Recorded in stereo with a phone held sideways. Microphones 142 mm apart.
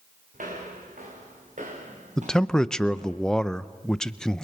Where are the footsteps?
75° right (ahead or behind), 5 m; by 3.2 s 55° right (ahead or behind), 4.5 m.